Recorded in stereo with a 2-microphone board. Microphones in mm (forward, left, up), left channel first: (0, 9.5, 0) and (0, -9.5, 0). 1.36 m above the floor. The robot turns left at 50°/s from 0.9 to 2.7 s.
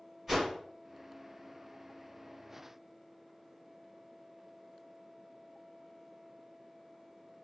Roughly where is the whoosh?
Centre.